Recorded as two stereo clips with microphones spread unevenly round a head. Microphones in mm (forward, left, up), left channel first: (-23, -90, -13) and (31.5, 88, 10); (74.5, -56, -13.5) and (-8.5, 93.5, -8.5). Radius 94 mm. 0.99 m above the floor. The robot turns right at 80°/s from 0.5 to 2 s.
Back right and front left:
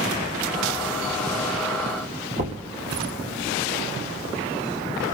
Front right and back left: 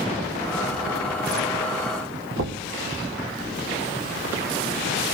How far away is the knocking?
About 1.2 m.